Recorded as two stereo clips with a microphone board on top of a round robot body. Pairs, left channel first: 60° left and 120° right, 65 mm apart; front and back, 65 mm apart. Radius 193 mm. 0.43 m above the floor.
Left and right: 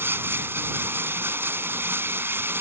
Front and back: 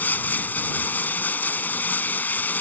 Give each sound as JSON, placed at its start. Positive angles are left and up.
{"t": 0.0, "sound": "running water", "azimuth_deg": -65}